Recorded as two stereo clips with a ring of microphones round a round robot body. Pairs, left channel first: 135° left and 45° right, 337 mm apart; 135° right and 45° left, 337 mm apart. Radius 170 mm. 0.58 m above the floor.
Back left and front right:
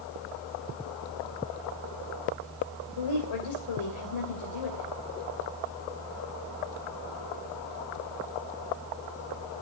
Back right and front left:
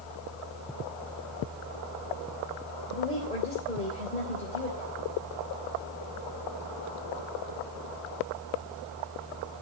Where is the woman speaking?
155° left, 3.5 m.